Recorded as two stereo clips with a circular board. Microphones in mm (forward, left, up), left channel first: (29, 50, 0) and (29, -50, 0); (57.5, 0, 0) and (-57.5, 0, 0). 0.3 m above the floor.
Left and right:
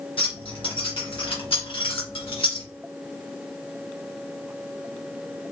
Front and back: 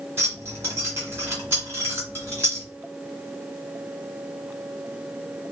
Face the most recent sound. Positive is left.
turn(degrees=115)